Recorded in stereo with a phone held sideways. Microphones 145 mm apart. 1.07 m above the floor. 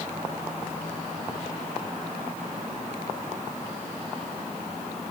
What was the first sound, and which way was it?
Only background noise.